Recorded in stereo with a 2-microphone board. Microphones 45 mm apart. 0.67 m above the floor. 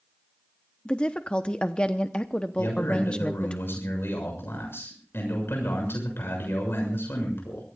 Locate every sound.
0.8 s a woman speaking: 25° left (ahead or behind), 0.8 m
2.6 s a man speaking: 75° left (ahead or behind), 7 m